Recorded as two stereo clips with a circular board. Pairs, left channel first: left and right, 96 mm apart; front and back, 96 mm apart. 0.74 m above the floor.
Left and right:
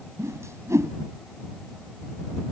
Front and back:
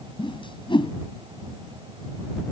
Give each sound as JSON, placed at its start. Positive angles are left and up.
{"t": 0.2, "sound": "a whoosh", "azimuth_deg": -30}